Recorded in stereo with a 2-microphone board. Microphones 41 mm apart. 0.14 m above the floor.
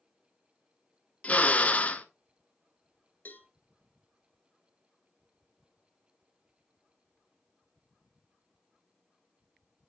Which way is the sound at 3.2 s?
50° left (ahead or behind).